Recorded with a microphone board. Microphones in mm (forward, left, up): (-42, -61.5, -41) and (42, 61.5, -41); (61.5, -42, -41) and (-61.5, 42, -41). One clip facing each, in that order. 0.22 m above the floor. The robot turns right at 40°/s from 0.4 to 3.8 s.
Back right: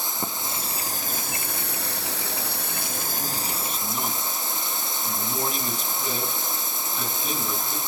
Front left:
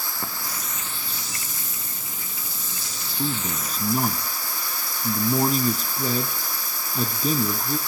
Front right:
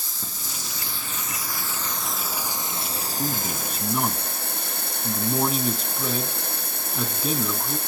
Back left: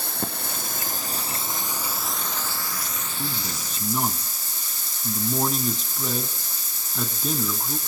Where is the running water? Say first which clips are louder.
Back right 2 dB, back left 9 dB; 170° left, 1.2 m; by 7.9 s 55° right, 1.2 m.